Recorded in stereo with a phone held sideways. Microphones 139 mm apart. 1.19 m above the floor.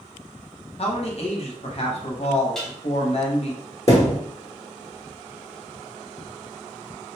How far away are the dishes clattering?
About 0.7 m.